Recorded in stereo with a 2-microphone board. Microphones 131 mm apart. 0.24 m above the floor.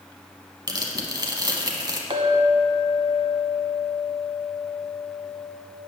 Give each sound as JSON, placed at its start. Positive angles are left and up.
{"t": 0.7, "sound": "tearing paper", "side_deg": -35, "distance_m": 0.9}
{"t": 2.1, "sound": "a clink", "side_deg": -50, "distance_m": 0.9}